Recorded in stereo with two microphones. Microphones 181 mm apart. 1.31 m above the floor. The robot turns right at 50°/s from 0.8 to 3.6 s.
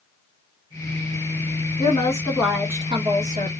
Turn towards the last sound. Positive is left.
turn(degrees=-120)